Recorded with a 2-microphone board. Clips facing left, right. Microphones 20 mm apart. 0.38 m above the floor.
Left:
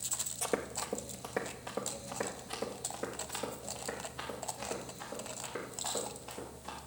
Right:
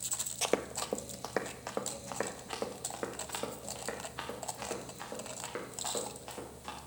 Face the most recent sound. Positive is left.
turn(degrees=-45)  # may be behind; listen again after turning